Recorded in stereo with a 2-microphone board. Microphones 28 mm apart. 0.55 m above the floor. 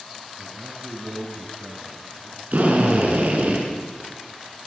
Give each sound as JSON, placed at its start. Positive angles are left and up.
{"t": 0.4, "sound": "a man speaking", "side_deg": -75, "distance_m": 6.5}
{"t": 2.5, "sound": "a drill", "side_deg": -65, "distance_m": 8.0}